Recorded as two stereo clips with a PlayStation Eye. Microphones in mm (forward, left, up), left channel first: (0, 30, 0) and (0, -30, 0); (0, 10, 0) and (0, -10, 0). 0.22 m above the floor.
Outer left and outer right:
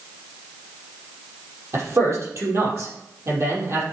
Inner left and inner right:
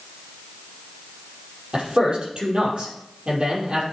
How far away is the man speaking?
About 5 m.